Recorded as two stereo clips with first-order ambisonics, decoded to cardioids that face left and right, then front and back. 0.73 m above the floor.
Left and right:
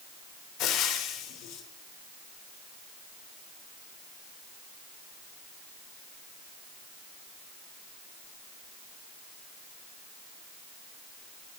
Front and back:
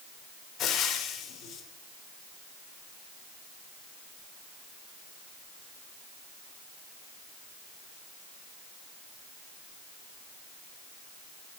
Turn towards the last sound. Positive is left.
turn(degrees=55)